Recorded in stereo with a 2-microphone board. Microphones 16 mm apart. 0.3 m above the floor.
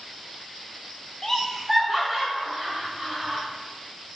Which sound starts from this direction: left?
Laughter, at 1.2 s.